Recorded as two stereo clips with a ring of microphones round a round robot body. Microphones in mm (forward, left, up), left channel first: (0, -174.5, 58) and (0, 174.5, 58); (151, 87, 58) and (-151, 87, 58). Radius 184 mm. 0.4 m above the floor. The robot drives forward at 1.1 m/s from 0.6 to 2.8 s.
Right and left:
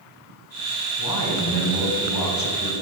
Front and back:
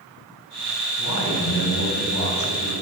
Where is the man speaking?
45° right, 3.5 m; by 2.7 s 80° right, 3 m.